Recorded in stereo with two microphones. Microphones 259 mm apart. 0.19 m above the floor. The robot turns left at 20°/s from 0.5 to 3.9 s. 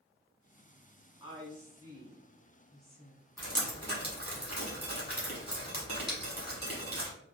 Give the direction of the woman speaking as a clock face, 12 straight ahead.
5 o'clock.